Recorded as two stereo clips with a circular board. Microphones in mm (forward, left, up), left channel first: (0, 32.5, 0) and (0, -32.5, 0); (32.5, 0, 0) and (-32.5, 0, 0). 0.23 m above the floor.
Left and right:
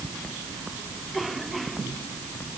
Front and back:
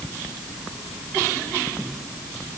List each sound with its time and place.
Only background noise.